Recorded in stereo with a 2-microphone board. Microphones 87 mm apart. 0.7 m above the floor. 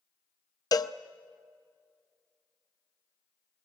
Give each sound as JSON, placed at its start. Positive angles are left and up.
{"t": 0.7, "sound": "a cowbell", "side_deg": 45, "distance_m": 0.5}